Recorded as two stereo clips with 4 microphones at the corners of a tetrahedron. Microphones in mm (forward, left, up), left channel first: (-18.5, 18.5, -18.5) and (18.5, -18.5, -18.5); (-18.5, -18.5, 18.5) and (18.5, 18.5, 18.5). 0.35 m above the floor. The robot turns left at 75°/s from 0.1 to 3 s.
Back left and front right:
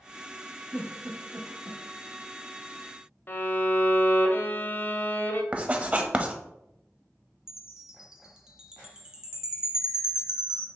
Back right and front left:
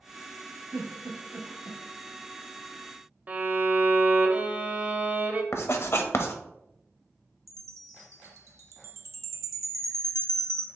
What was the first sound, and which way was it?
A giggle, 35° left.